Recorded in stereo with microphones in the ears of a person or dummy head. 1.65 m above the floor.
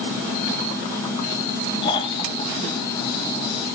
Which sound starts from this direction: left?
Snoring, at 1.8 s.